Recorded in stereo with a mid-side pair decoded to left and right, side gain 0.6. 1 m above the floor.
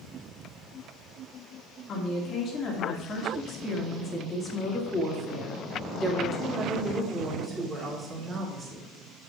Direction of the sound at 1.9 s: 50° left.